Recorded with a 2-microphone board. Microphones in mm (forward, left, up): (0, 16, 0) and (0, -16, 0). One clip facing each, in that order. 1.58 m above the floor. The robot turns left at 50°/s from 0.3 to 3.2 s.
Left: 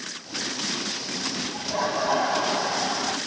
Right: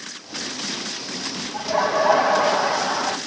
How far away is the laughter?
About 1.7 m.